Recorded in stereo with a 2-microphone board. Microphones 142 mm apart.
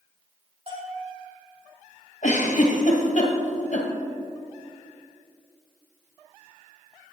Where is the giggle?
55° left (ahead or behind), 1.7 m.